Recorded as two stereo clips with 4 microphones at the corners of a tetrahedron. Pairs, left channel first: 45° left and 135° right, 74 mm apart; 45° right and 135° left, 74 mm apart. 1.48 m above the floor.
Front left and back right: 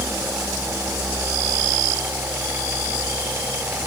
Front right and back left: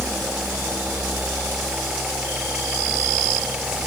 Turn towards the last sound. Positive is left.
No sound to turn to.